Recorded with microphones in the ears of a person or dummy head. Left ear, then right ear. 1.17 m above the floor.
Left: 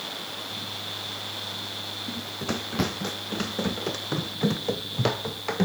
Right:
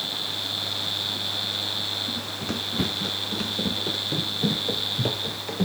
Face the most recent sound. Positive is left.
turn(degrees=55)  # may be behind; listen again after turning